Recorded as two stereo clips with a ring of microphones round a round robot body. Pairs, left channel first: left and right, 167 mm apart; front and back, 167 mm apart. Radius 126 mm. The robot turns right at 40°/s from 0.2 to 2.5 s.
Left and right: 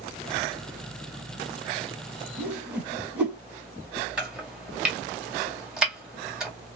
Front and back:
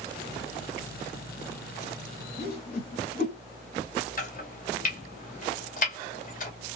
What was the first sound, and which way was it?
A whoosh, 15° right.